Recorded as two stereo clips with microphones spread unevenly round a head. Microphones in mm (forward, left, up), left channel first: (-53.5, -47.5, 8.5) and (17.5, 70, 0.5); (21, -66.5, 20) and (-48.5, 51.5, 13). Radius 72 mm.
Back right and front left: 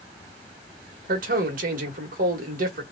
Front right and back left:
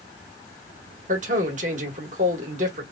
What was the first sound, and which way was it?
A man speaking, 80° left.